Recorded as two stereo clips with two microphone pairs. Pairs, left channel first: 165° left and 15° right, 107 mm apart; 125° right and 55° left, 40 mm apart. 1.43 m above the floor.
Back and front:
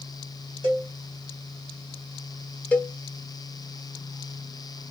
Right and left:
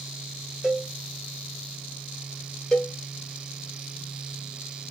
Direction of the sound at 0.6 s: 15° right.